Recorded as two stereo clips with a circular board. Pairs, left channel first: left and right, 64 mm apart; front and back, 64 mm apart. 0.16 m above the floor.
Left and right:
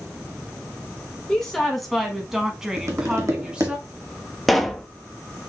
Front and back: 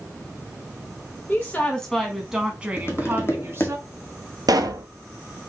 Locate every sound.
1.3 s a woman speaking: 20° left, 1.2 m; by 3.8 s 160° right, 1.6 m
2.8 s tapping: 50° right, 1.4 m
4.5 s a pop: straight behind, 0.6 m